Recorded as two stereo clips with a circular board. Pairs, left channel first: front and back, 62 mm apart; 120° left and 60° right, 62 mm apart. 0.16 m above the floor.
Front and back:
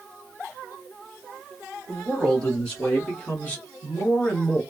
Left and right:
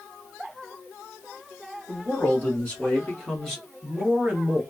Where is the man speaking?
75° left, 1.8 m; by 4.6 s 20° right, 1.3 m.